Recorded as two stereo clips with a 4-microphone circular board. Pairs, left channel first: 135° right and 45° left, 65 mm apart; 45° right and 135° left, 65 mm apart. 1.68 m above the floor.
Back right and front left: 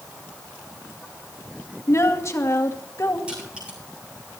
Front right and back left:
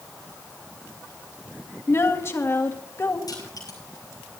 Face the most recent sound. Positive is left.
turn(degrees=-30)